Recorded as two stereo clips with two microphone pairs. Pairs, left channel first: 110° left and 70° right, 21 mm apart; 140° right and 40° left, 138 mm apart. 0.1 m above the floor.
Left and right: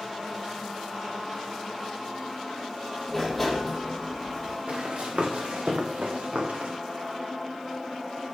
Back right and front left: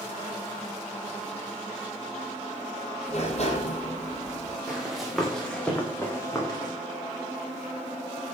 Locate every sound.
3.1 s a sliding door: 165° right, 3 m
4.7 s running footsteps: 40° right, 5 m; by 6.7 s 80° right, 4 m